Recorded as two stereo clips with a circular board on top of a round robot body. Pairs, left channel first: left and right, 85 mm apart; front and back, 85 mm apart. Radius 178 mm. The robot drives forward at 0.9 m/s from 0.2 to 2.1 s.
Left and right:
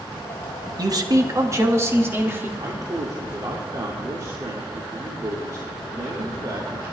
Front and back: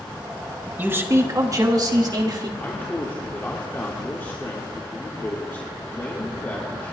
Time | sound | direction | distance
0.8 | a man speaking | 115° right | 1.4 m
2.6 | a man speaking | 60° right | 2 m